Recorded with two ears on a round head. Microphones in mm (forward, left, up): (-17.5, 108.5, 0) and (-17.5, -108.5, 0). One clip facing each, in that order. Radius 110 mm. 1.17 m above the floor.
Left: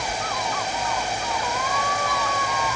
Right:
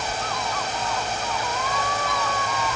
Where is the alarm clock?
No alarm clock in this recording.